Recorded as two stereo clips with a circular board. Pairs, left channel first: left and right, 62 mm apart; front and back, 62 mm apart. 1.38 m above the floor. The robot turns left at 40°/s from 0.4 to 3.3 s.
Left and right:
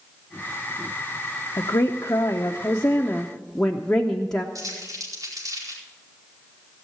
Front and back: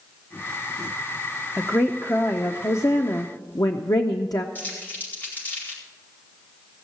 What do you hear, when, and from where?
1.6 s a woman speaking: 80° left, 0.7 m; by 4.5 s 10° left, 0.7 m
4.5 s crumpling: 60° right, 4.5 m